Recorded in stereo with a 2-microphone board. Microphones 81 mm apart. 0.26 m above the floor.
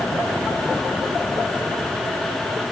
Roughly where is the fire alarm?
I don't hear a fire alarm.